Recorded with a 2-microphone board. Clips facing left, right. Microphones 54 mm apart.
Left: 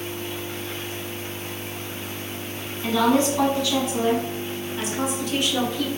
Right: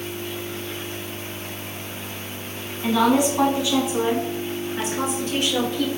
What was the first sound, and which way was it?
A woman speaking, 10° right (ahead or behind).